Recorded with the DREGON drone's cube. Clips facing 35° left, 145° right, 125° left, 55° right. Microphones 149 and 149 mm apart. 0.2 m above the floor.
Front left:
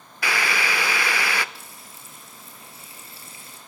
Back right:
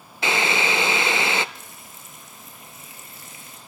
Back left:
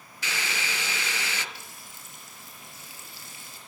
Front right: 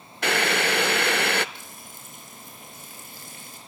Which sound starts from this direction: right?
Boiling, at 0.2 s.